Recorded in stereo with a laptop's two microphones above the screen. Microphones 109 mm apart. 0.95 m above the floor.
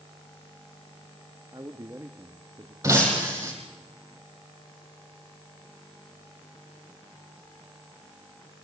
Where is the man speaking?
30° right (ahead or behind), 1.2 m.